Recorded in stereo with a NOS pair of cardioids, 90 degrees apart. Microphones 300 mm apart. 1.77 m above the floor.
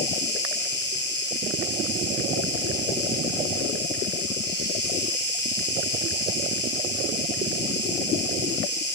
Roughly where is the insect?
Ahead left.